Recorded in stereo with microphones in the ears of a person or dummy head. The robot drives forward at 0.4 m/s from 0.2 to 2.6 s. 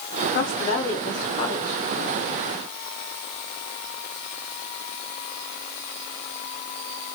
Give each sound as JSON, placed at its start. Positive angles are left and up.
{"t": 0.3, "sound": "a woman speaking", "side_deg": 55, "distance_m": 0.6}